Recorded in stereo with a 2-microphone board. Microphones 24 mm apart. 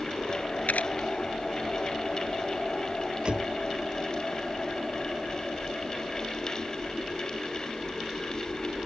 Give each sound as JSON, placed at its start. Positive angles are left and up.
{"t": 0.7, "sound": "a camera shutter", "side_deg": 80}
{"t": 3.2, "sound": "a door slam", "side_deg": -45}